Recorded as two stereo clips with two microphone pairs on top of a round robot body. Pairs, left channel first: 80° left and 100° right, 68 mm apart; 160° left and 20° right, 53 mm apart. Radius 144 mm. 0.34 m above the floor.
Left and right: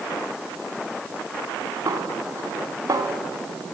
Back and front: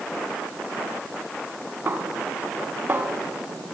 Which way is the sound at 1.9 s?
70° right.